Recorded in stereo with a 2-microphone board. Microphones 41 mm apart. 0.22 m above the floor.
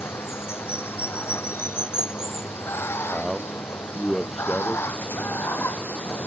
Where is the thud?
No thud in this recording.